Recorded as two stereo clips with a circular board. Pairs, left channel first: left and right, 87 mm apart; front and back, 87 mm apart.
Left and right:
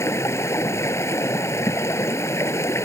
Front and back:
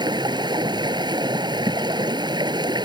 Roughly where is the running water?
Behind left.